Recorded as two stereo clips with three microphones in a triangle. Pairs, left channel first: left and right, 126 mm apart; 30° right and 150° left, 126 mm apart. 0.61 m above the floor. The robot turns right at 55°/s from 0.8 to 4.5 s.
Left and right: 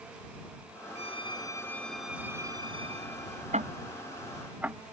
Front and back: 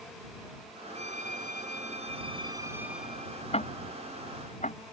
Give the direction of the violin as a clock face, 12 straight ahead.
8 o'clock.